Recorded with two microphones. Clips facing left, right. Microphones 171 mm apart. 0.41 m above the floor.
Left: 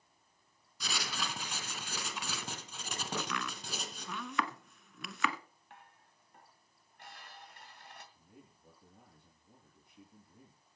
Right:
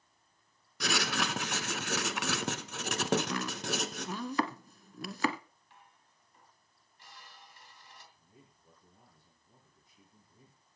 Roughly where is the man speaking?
Left.